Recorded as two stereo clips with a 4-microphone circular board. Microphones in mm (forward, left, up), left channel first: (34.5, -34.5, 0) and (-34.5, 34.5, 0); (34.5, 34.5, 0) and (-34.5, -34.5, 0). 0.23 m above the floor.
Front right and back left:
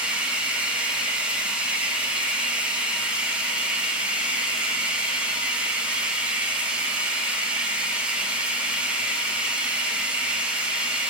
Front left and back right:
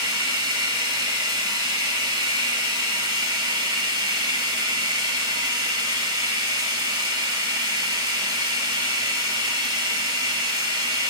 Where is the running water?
150° right, 1.3 m.